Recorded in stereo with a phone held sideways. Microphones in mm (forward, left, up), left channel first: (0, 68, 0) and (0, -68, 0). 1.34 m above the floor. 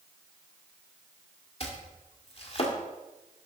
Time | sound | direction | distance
1.6 | chopping | 45° left (ahead or behind) | 1.6 m